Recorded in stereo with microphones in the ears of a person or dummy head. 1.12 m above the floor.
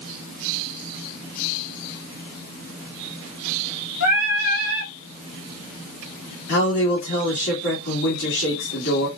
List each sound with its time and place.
4.0 s singing: 85° left, 2.5 m
6.5 s a man speaking: 55° left (ahead or behind), 1.9 m